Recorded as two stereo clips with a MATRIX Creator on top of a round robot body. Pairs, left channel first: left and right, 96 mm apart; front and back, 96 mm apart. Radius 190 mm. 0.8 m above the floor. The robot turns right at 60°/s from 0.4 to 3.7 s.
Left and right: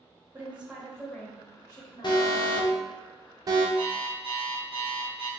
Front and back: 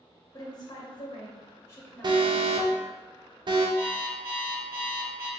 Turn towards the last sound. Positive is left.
turn(degrees=-70)